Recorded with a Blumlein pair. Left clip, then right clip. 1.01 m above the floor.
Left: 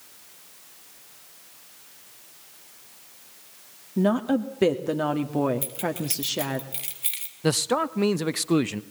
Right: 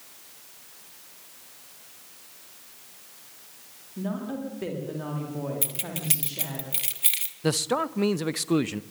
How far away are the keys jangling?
About 1.4 m.